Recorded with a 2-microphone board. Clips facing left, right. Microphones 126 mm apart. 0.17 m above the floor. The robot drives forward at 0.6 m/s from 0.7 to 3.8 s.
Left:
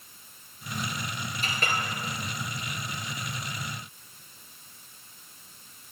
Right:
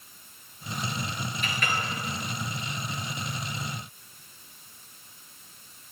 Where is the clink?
35° left (ahead or behind), 2.5 m.